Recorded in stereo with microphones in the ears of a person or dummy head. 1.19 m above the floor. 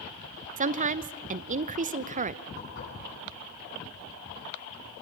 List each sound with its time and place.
0.6 s a woman speaking: 35° right (ahead or behind), 0.6 m
2.6 s dishes clattering: 60° left (ahead or behind), 7.5 m